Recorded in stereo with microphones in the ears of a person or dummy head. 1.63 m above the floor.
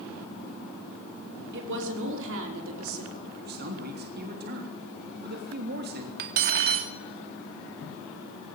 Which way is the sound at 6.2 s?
50° right (ahead or behind).